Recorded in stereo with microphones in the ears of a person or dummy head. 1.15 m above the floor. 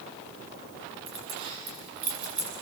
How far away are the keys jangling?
About 7.5 m.